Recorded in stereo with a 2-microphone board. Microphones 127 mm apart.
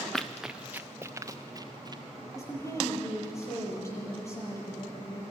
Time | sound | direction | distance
0.1 | running footsteps | 5° left (ahead or behind) | 0.8 m
2.4 | a woman speaking | 20° left (ahead or behind) | 6 m